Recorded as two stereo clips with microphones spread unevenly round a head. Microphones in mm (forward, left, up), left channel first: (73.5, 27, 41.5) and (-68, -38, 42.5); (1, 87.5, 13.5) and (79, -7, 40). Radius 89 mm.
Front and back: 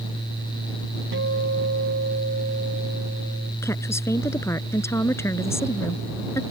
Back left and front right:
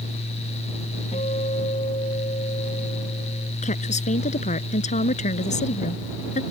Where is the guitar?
170° right.